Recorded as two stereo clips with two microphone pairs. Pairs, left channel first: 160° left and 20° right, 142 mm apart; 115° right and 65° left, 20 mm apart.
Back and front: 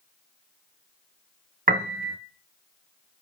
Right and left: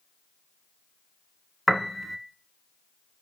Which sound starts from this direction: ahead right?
A piano, at 1.7 s.